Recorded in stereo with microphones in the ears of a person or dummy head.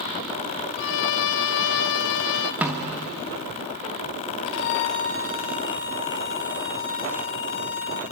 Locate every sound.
0.8 s a violin: 65° left (ahead or behind), 0.6 m
2.6 s a snare drum: centre (ahead or behind), 1.3 m
4.5 s a violin: 60° left (ahead or behind), 1.6 m